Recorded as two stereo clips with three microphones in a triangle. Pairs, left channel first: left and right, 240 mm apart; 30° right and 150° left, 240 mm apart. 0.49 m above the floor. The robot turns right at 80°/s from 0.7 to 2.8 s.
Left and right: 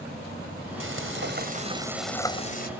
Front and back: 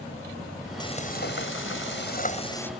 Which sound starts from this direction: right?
Frying, at 0.8 s.